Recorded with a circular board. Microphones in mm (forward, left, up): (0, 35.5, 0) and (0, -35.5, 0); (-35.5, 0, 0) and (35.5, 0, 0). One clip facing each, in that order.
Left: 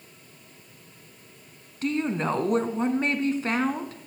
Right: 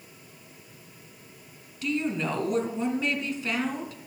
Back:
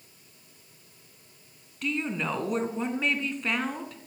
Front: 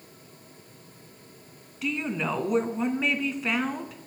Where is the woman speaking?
85° left, 1.8 m.